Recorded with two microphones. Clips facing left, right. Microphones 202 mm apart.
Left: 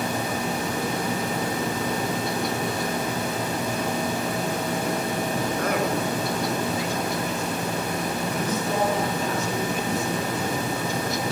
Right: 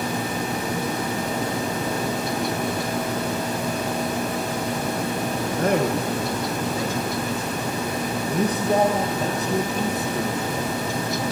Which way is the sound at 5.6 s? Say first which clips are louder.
Right 6 dB; 30° right (ahead or behind).